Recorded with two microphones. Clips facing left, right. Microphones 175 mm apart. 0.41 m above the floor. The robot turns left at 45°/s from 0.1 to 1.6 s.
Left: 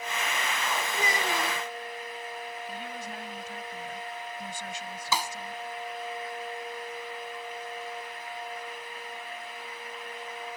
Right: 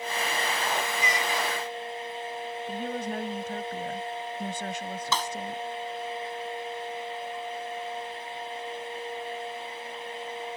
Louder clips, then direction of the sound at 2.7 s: Right 7 dB; 55° right (ahead or behind).